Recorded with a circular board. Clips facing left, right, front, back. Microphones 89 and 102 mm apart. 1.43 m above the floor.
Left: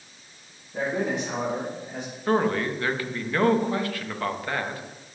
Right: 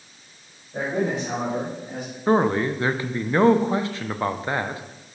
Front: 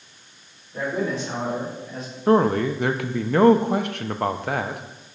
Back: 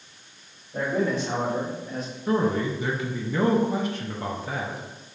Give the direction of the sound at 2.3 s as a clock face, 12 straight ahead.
1 o'clock.